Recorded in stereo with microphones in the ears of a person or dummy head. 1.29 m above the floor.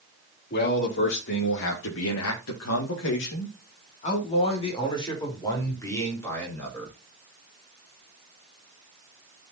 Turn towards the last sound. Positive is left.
turn(degrees=5)  # may be behind; listen again after turning